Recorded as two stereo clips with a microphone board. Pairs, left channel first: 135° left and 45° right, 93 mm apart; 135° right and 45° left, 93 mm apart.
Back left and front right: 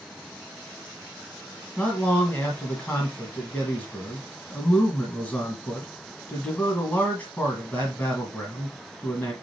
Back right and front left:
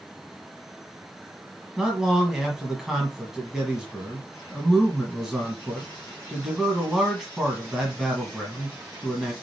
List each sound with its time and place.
1.8 s a man speaking: 120° left, 1.4 m